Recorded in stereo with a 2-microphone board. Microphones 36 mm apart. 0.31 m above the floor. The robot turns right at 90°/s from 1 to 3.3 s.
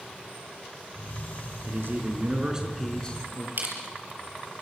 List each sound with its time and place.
1.7 s a man speaking: 100° right, 4.5 m; by 3.5 s 45° left, 4.5 m
3.6 s crushing: 60° right (ahead or behind), 5 m